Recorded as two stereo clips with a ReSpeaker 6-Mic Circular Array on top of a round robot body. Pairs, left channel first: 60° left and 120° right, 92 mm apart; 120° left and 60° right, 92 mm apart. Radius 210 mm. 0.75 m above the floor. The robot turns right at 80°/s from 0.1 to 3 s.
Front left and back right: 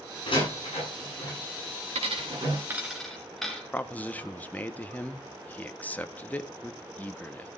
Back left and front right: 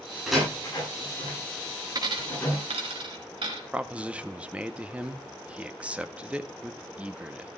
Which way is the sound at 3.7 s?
5° left.